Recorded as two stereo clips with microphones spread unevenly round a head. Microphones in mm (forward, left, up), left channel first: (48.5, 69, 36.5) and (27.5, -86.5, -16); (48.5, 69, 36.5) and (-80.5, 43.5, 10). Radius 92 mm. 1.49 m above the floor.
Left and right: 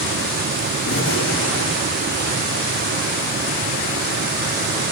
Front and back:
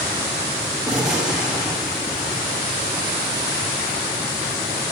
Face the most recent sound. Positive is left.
turn(degrees=105)